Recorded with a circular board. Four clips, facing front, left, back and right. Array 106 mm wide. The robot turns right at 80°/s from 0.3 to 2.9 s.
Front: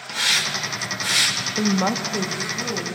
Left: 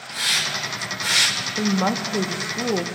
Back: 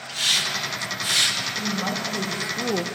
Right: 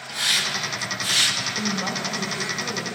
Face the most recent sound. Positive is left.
turn(degrees=135)